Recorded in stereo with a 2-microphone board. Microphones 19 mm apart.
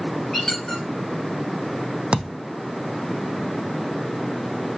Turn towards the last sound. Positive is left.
turn(degrees=-75)  # may be behind; listen again after turning